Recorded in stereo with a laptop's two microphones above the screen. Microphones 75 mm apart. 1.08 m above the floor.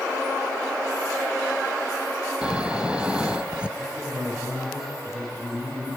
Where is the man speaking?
10° right (ahead or behind), 6 m.